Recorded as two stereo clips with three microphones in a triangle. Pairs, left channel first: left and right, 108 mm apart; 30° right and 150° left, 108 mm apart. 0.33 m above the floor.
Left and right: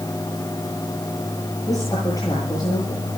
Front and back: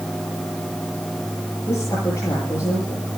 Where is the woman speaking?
35° left, 9.5 m.